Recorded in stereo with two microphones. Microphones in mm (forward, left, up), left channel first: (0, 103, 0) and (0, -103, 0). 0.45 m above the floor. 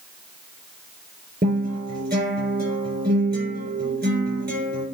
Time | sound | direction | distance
1.4 | a guitar | 50° right (ahead or behind) | 8 m